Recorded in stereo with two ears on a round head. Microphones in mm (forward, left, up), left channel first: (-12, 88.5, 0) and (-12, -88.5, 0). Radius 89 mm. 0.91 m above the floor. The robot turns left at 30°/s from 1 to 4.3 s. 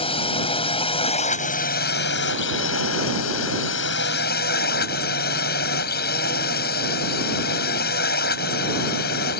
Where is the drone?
150° left; by 9.4 s 50° left.